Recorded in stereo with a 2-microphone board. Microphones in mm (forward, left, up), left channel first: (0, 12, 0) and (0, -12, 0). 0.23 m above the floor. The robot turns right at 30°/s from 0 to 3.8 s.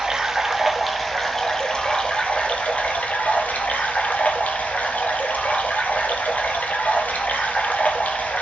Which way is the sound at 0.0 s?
20° right.